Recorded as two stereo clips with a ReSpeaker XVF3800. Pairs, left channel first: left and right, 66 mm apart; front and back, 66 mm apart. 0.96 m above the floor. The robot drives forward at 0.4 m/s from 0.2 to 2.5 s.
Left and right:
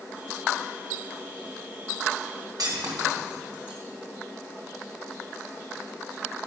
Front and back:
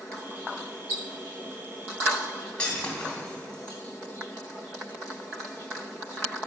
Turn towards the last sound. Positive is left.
turn(degrees=-75)